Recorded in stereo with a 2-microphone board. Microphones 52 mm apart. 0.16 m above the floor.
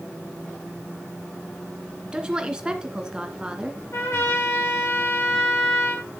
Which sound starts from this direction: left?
A trumpet, at 3.9 s.